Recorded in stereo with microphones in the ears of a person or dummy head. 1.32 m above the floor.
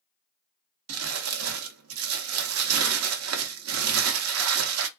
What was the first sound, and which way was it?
Crumpling, 65° right (ahead or behind).